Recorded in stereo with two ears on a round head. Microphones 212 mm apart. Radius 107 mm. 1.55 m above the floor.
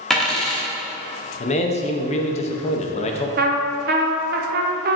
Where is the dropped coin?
Centre (ahead or behind), 1.2 m.